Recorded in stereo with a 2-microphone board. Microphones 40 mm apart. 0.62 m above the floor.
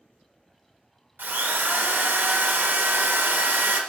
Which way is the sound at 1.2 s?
60° right (ahead or behind).